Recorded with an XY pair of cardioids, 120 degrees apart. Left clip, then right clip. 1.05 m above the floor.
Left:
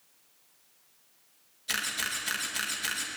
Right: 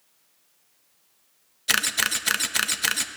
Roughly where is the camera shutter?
Ahead right.